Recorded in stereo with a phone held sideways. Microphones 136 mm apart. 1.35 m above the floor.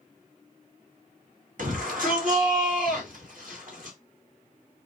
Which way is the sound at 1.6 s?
75° right (ahead or behind).